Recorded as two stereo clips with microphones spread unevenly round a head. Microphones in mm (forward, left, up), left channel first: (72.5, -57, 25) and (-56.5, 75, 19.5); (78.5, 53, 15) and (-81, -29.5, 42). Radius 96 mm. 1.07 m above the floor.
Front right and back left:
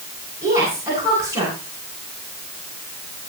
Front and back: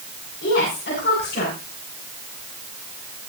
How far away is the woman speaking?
About 9 m.